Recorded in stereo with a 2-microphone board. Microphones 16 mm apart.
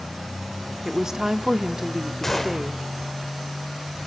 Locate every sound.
0.8 s a woman speaking: 35° right (ahead or behind), 0.9 m
2.2 s a gunshot: 15° left (ahead or behind), 2 m